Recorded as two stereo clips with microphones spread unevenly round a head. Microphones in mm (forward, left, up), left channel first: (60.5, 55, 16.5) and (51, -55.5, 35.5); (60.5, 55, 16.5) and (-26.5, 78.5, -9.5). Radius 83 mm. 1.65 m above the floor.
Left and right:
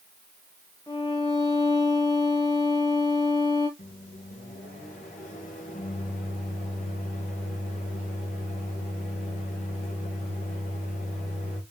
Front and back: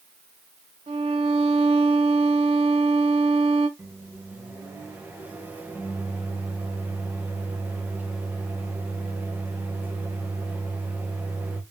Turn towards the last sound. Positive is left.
turn(degrees=90)